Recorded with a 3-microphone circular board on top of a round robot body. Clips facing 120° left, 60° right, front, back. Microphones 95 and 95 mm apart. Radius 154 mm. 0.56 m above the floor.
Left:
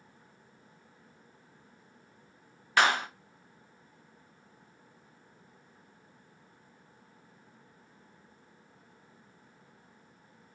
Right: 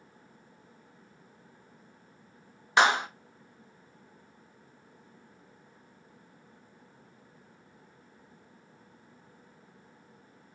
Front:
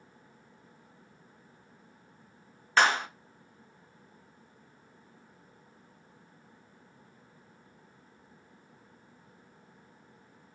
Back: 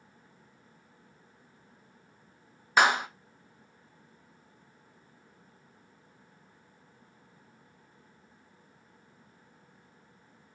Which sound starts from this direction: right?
A clap, at 2.8 s.